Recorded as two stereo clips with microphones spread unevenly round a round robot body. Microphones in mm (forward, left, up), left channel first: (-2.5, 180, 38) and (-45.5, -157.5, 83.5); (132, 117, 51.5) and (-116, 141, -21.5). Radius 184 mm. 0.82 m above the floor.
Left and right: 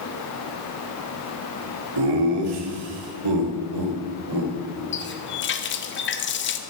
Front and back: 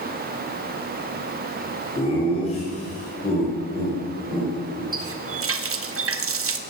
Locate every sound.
2.0 s laughter: 85° right, 3 m; by 4.8 s 75° right, 5 m
4.9 s a running tap: 140° left, 1.4 m